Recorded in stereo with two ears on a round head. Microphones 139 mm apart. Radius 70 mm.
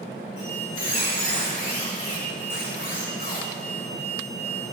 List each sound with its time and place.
0.4 s a squeak: 60° left (ahead or behind), 6 m